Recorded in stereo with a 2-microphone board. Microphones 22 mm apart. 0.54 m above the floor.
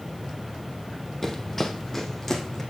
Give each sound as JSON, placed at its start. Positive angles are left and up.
{"t": 1.2, "sound": "running footsteps", "side_deg": 15, "distance_m": 1.3}